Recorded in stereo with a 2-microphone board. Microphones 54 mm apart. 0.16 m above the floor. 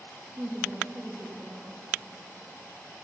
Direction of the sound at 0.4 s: 30° right (ahead or behind).